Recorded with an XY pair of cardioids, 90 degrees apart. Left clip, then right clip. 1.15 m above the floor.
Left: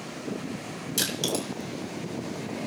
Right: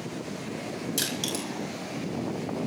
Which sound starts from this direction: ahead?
Crushing, at 1.0 s.